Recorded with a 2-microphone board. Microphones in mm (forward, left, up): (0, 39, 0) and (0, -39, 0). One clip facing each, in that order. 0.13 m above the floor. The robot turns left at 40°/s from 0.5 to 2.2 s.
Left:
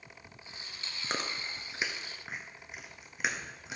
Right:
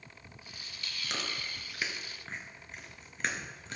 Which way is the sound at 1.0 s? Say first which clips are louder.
Left 3 dB; 40° left (ahead or behind).